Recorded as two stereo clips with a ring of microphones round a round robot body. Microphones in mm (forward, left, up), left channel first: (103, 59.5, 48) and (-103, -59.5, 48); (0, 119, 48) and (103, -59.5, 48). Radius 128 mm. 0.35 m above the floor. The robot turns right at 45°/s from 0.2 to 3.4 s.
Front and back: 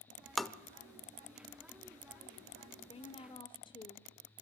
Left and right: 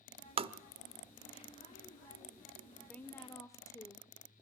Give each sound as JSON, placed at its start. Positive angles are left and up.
{"t": 0.4, "sound": "tapping", "azimuth_deg": -60, "distance_m": 0.6}
{"t": 2.9, "sound": "a woman speaking", "azimuth_deg": 40, "distance_m": 0.8}